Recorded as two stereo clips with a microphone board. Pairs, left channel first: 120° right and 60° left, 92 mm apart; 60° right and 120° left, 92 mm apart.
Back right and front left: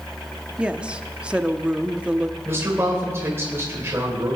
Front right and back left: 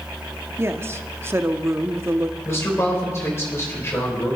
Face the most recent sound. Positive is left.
turn(degrees=0)